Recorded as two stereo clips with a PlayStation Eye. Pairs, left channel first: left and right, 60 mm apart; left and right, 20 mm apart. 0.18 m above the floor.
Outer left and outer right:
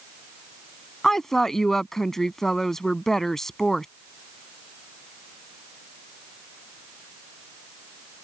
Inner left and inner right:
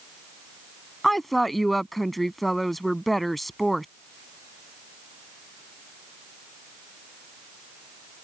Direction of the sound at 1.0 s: 5° left (ahead or behind).